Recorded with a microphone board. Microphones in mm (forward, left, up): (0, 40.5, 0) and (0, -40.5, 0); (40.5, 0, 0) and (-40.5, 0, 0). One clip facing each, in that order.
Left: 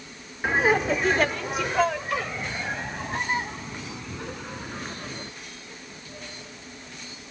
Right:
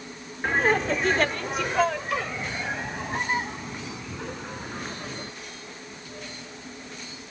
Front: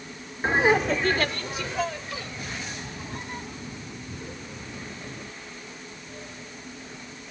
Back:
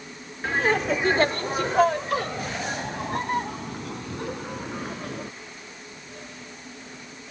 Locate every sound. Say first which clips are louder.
0.4 s laughter: left 1 dB, front 2 dB; 15° left; by 5.3 s straight behind